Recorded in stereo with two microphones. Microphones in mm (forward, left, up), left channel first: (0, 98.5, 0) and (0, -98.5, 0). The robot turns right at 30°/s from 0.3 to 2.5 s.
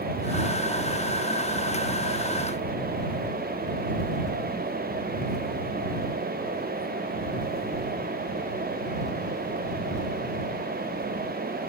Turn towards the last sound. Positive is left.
No sound to turn to.